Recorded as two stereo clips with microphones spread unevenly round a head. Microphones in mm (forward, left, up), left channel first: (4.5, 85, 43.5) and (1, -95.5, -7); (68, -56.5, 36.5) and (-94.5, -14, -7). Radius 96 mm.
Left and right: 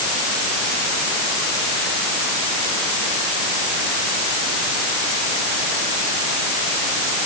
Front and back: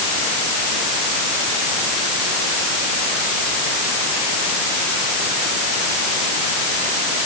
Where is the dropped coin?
No dropped coin in this recording.